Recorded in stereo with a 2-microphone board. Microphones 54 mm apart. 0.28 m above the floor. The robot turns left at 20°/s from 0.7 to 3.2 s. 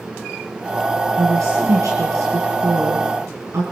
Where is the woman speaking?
65° right (ahead or behind), 3.5 m; by 3.6 s 60° right (ahead or behind), 3.5 m.